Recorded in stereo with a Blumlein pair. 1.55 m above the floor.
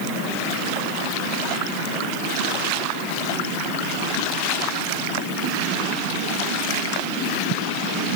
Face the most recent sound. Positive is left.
No sound to turn to.